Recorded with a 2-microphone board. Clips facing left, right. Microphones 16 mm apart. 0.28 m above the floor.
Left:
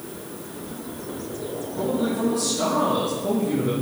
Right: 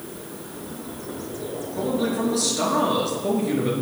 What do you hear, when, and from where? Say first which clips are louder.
1.8 s a man speaking: even; 40° right (ahead or behind), 4 m